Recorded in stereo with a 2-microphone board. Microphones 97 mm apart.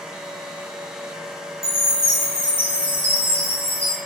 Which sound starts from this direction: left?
A chime, at 1.6 s.